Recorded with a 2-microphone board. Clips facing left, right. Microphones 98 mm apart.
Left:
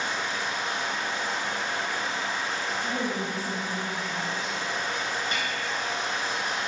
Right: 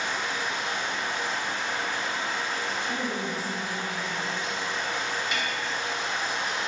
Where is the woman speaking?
50° left (ahead or behind), 1.7 m.